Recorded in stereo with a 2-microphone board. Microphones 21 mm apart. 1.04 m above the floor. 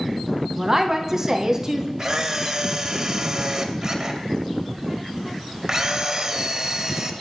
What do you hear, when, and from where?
0.6 s a woman speaking: 20° right (ahead or behind), 0.7 m
2.0 s a camera shutter: 30° right (ahead or behind), 0.6 m